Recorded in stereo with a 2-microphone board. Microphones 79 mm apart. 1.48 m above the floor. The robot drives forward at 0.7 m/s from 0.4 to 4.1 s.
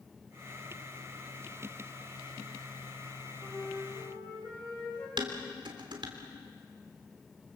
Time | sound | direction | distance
3.4 | a flute | 15° left (ahead or behind) | 7 m
5.2 | dishes clattering | 75° right (ahead or behind) | 3 m